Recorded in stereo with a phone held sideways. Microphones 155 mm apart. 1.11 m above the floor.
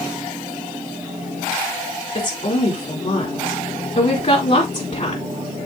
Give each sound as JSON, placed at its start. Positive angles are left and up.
{"t": 2.1, "sound": "a woman speaking", "side_deg": 55, "distance_m": 3.0}